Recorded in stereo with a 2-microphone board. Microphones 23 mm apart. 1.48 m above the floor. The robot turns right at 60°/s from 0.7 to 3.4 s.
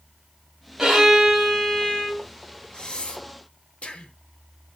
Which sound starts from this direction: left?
Breathing, at 2.7 s.